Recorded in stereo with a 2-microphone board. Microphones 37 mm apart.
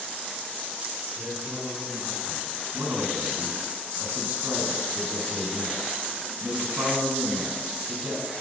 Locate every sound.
1.2 s a man speaking: 40° right (ahead or behind), 4.5 m; by 2.6 s 25° right (ahead or behind), 3.5 m
2.7 s a man speaking: 55° right (ahead or behind), 3 m